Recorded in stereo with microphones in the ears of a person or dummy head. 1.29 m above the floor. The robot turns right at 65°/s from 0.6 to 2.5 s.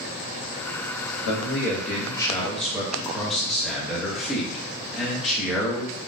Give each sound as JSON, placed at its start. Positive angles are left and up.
{"t": 1.2, "sound": "a man speaking", "azimuth_deg": 100, "distance_m": 0.8}